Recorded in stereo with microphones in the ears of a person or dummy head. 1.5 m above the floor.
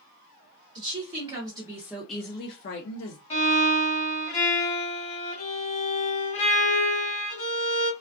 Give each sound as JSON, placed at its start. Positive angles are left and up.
{"t": 0.8, "sound": "a woman speaking", "side_deg": -35, "distance_m": 1.2}
{"t": 3.3, "sound": "a violin", "side_deg": 30, "distance_m": 0.9}